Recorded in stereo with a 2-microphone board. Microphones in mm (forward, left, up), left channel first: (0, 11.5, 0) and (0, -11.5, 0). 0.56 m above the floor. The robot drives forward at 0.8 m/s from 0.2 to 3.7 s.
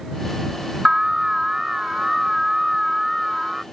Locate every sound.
0.8 s an alarm: 25° right (ahead or behind); by 3.6 s 15° right (ahead or behind)